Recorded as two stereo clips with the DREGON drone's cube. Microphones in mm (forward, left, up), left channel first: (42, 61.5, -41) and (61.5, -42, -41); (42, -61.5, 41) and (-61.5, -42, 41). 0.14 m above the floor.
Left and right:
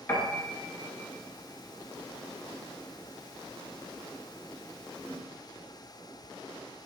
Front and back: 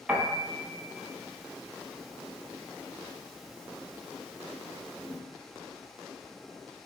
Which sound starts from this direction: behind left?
A piano, at 0.1 s.